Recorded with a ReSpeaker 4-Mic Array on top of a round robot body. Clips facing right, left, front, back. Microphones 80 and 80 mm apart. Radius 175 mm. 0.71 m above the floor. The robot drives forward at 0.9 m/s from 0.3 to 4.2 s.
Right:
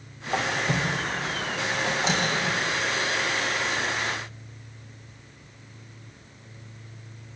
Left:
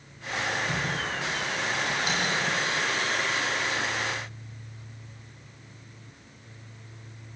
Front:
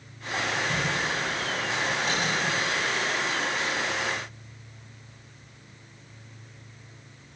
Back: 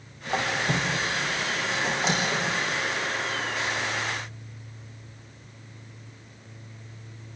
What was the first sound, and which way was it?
A squeak, 145° right.